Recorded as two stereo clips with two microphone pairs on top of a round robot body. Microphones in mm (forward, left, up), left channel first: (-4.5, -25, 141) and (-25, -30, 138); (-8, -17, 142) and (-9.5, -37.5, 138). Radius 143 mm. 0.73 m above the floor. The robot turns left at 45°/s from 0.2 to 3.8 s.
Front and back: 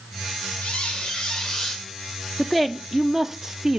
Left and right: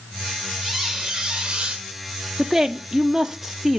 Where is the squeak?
20° right, 0.8 m; by 1.9 s 75° right, 0.8 m.